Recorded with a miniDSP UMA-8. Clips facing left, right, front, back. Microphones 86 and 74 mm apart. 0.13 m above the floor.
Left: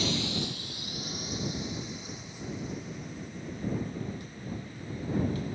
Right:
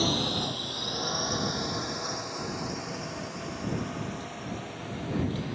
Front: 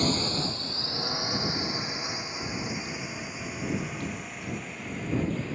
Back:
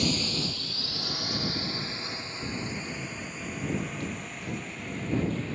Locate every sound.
0.0 s a drone: 45° right; by 5.6 s 85° right